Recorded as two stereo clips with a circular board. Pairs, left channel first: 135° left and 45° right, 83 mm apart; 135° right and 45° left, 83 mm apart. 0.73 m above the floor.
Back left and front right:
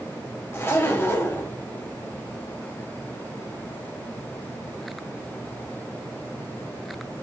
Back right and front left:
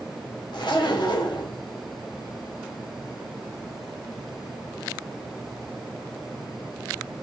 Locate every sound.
0.5 s a zipper: 160° right, 0.6 m